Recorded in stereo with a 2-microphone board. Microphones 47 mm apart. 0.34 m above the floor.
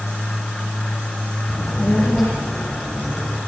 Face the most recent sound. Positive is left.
turn(degrees=35)  # may be behind; listen again after turning